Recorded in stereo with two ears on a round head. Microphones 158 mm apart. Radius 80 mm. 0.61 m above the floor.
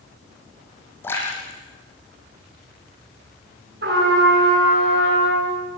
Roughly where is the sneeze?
No sneeze in this recording.